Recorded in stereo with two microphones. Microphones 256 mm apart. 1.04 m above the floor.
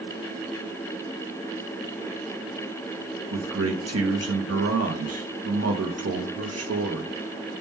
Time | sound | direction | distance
3.3 | a man speaking | 70° right (ahead or behind) | 0.7 m